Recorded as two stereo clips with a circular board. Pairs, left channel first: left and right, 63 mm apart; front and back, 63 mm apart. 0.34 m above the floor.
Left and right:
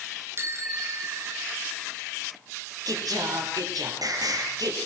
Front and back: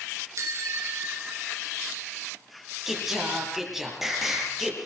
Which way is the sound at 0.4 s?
140° right.